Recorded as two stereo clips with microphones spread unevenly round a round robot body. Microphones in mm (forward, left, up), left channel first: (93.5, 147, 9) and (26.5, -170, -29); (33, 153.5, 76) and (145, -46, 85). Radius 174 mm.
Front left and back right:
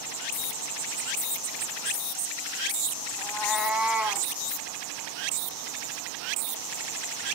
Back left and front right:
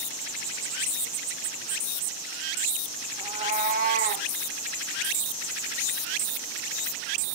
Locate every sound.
3.2 s a cat meowing: 5° left, 0.7 m; by 4.3 s 15° right, 1.4 m